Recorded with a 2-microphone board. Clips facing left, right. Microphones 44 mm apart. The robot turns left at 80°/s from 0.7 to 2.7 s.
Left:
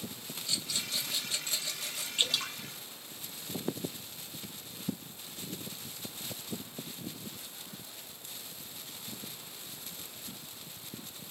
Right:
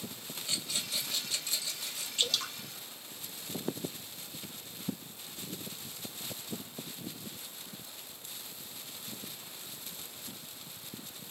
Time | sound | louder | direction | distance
0.5 | a rattle | left 1 dB | 155° right | 1.4 m
2.2 | dripping | left 1 dB | 25° left (ahead or behind) | 1.1 m